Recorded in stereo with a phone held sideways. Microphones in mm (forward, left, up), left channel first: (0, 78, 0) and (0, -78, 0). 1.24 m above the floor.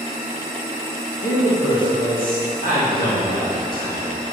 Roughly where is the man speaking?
Left.